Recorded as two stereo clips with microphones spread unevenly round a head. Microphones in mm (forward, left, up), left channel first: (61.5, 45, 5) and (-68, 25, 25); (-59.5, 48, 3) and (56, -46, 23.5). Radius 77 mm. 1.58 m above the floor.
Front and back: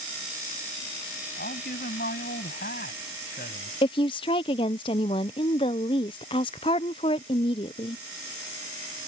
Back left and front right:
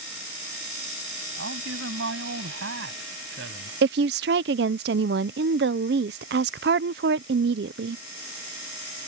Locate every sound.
1.4 s a man speaking: 30° right
3.8 s a woman speaking: 55° right